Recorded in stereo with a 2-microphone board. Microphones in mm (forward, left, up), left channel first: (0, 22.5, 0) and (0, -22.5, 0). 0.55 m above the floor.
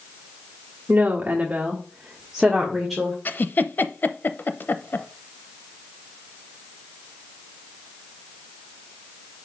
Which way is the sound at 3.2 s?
50° left (ahead or behind).